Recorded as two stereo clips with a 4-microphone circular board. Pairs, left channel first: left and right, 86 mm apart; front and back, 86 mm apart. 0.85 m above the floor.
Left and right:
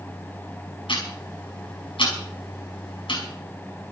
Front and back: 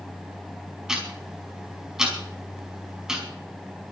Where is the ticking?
95° left, 5 m.